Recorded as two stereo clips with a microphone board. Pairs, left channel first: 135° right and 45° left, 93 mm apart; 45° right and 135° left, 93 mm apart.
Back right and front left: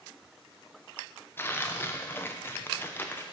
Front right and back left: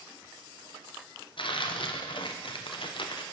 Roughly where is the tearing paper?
Right.